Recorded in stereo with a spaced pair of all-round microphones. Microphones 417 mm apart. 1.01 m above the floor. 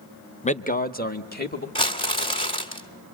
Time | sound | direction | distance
0.4 | a man speaking | 15° left (ahead or behind) | 0.6 m
1.8 | crumpling | 15° left (ahead or behind) | 2 m